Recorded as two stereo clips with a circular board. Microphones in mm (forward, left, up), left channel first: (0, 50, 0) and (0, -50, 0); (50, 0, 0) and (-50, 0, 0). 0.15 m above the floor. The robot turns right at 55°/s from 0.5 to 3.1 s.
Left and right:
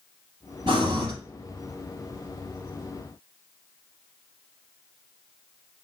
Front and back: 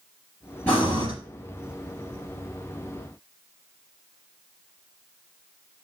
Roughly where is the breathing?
Right.